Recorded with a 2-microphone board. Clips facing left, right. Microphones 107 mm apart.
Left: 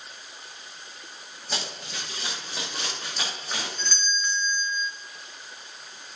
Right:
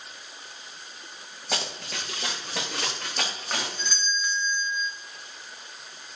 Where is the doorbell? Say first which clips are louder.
Even; 10° right (ahead or behind), 1.0 m.